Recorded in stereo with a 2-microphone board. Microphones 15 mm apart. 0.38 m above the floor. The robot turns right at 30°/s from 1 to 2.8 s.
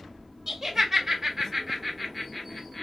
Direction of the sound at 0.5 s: 30° right (ahead or behind).